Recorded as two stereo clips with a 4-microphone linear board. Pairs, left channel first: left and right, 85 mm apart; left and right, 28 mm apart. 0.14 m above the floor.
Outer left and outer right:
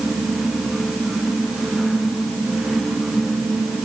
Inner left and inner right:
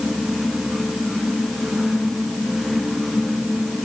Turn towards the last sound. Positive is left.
No sound to turn to.